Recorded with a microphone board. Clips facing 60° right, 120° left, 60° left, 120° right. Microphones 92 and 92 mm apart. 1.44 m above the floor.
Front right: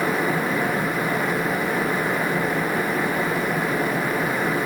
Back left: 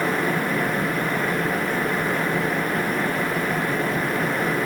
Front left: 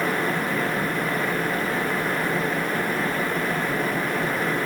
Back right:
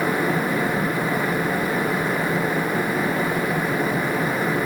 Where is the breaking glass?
No breaking glass in this recording.